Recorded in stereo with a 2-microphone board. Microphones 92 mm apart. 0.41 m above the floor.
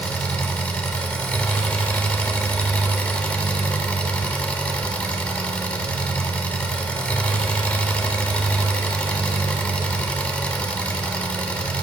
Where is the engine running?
15° left (ahead or behind), 0.9 m.